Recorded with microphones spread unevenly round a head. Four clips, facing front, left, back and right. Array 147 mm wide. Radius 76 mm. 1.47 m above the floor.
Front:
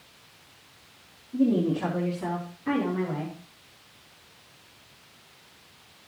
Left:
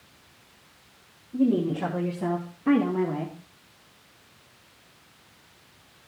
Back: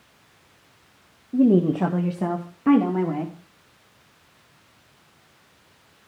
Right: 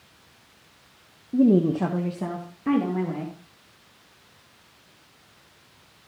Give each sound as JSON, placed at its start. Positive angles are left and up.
{"t": 1.3, "sound": "a woman speaking", "azimuth_deg": -125, "distance_m": 1.1}